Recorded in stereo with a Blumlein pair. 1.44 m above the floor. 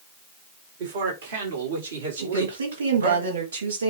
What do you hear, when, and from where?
0.8 s a man speaking: 55° right, 3.5 m; by 3.2 s 70° right, 5.5 m
2.2 s a woman speaking: 70° right, 3.5 m